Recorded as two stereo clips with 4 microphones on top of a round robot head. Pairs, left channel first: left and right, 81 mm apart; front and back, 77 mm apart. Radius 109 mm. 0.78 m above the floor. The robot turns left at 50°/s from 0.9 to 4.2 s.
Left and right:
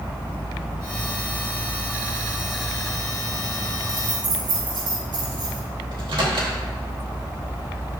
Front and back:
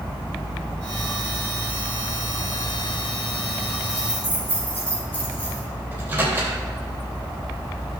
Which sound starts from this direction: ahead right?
Keys jangling, at 3.9 s.